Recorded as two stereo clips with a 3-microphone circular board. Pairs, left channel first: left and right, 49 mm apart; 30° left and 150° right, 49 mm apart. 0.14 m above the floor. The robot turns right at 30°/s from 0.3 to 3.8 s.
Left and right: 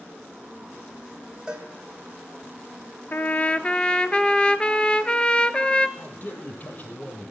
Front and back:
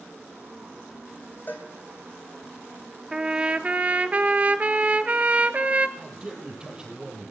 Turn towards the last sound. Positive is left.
turn(degrees=140)